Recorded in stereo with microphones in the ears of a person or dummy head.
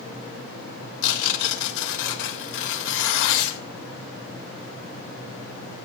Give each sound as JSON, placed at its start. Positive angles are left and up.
{"t": 1.0, "sound": "tearing paper", "side_deg": 70, "distance_m": 3.5}